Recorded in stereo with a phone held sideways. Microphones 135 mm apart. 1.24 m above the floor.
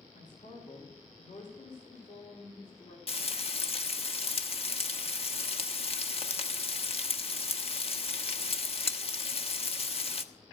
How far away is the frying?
About 1.0 m.